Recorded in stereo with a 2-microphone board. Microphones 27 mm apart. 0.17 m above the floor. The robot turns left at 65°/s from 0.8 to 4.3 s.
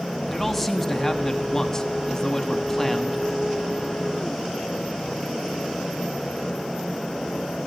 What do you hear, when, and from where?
0.3 s a man speaking: 5° left (ahead or behind), 1.0 m